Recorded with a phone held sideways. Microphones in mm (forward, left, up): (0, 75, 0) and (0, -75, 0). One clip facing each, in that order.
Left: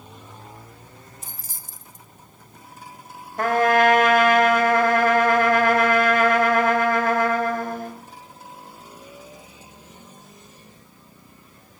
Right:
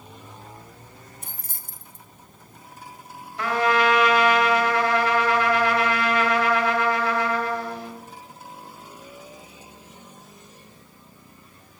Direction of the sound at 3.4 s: 50° left (ahead or behind).